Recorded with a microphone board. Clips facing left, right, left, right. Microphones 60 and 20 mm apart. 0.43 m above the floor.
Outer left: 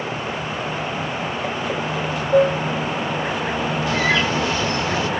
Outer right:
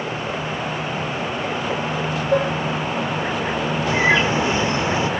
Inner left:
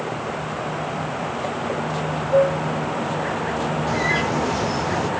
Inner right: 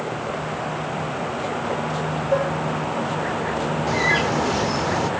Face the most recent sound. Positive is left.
turn(degrees=-25)  # may be behind; listen again after turning